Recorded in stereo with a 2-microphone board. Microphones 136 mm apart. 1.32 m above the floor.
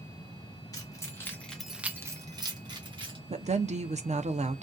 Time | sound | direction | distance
0.7 | keys jangling | 25° left (ahead or behind) | 0.9 m
3.3 | a woman speaking | 55° right (ahead or behind) | 0.5 m